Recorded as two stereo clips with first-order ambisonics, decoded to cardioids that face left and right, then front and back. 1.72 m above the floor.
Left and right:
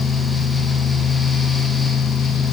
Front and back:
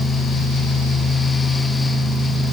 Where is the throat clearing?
I don't hear throat clearing.